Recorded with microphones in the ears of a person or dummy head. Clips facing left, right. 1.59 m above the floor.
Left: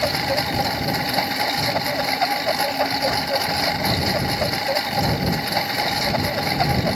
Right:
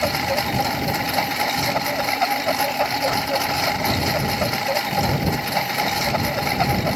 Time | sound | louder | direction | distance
0.0 | a lawn mower | even | 5° left (ahead or behind) | ?